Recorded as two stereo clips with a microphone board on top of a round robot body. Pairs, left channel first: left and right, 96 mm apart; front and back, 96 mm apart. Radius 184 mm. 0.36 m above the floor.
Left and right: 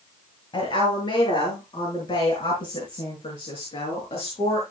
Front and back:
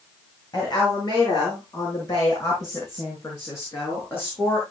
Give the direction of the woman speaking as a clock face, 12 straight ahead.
10 o'clock.